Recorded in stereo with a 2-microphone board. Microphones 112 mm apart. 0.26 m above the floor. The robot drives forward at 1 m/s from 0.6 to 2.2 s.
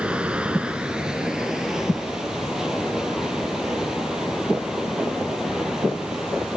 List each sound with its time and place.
0.0 s running water: 10° right (ahead or behind), 1.4 m; by 6.6 s 5° right (ahead or behind), 3 m